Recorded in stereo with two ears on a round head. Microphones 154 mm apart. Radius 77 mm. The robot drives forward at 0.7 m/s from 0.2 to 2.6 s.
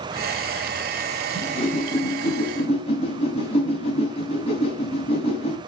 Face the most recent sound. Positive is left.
turn(degrees=35)  # may be behind; listen again after turning